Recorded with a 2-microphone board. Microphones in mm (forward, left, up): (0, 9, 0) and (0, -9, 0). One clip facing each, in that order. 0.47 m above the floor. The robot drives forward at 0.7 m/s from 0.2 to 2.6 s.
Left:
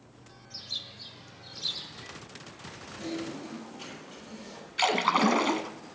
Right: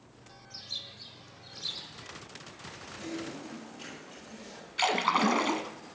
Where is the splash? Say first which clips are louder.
Left 2 dB; 5° left (ahead or behind), 1.0 m.